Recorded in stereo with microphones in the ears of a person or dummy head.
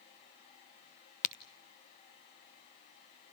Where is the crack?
45° left (ahead or behind), 1.1 m.